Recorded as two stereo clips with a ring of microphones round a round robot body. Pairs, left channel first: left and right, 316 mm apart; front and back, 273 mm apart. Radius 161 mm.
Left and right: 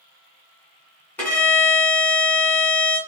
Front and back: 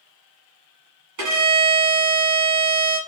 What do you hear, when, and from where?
1.2 s a violin: 175° left, 2 m